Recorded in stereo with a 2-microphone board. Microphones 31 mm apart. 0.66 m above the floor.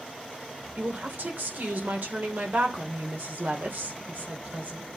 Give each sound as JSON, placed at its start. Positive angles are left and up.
{"t": 0.8, "sound": "a woman speaking", "side_deg": -70, "distance_m": 2.5}